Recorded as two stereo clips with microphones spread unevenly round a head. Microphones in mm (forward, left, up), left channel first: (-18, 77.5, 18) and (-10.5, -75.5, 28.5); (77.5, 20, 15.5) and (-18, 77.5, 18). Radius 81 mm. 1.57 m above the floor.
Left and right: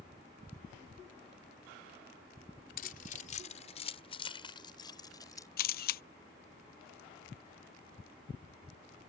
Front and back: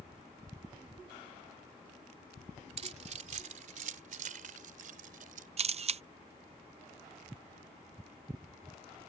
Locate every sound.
2.8 s keys jangling: 125° left; by 5.5 s 165° left
5.6 s a camera shutter: 120° left